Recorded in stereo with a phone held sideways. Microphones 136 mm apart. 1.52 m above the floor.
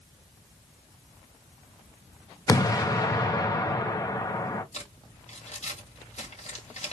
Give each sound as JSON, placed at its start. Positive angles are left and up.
{"t": 2.5, "sound": "an explosion", "side_deg": 25, "distance_m": 1.0}
{"t": 4.7, "sound": "crumpling", "side_deg": 55, "distance_m": 2.5}